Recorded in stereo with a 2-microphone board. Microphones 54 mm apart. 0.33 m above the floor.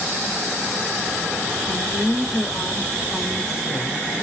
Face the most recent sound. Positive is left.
turn(degrees=60)  # may be behind; listen again after turning